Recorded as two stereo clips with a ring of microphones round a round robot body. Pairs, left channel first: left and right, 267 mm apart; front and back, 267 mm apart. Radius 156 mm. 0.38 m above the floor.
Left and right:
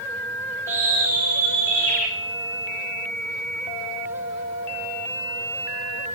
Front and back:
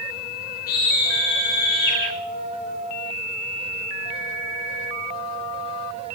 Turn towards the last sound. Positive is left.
turn(degrees=10)